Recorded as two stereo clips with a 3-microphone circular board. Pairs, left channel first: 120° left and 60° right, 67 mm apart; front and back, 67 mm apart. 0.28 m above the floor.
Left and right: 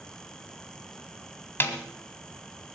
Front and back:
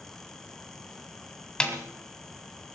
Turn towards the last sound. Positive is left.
turn(degrees=75)